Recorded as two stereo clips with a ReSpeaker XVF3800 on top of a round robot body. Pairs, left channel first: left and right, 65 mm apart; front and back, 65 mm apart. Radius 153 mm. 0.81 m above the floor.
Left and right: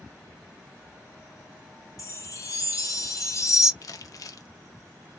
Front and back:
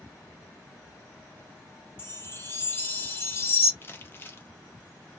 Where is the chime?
55° left, 1.1 m.